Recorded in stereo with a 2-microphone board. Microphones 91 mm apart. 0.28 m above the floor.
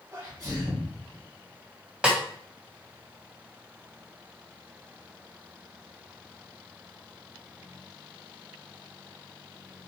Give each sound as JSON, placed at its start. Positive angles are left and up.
{"t": 0.1, "sound": "a sneeze", "side_deg": -35, "distance_m": 2.0}
{"t": 2.0, "sound": "a snare drum", "side_deg": -10, "distance_m": 1.8}